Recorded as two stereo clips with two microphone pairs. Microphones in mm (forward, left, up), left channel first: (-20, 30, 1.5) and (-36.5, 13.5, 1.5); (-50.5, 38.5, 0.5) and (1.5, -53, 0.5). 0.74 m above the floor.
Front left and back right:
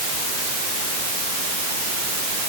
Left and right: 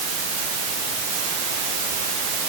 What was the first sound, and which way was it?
Only background noise.